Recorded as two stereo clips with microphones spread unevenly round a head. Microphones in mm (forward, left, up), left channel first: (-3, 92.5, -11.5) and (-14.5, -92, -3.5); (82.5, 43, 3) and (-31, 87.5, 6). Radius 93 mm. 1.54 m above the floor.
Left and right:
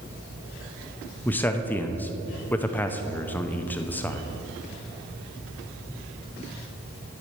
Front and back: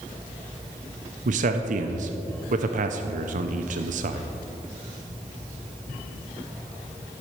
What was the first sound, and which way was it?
A man speaking, 170° left.